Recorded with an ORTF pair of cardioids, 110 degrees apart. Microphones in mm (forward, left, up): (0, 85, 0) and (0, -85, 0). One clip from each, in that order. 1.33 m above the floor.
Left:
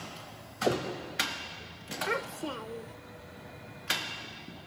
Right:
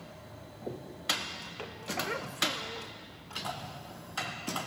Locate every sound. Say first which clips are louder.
2.1 s a child speaking: even; 25° left